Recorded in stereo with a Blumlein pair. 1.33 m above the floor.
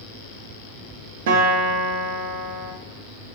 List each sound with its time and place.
1.3 s a guitar: 55° right, 0.6 m